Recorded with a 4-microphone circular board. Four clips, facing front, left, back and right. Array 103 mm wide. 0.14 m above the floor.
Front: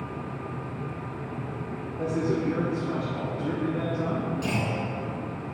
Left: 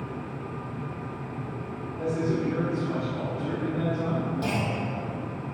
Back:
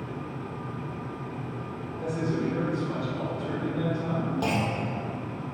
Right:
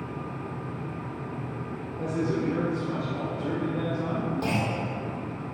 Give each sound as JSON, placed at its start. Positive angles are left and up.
{"t": 2.0, "sound": "a man speaking", "azimuth_deg": 25, "distance_m": 2.0}
{"t": 4.4, "sound": "a clunk", "azimuth_deg": -175, "distance_m": 2.0}